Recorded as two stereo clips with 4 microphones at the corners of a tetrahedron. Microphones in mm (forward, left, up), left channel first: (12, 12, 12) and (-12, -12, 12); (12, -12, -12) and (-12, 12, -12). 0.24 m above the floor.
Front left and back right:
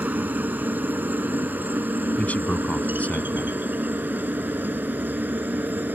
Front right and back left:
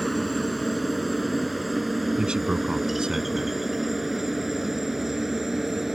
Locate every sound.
0.0 s a helicopter: 135° right; by 6.0 s 150° right
2.2 s a man speaking: 75° left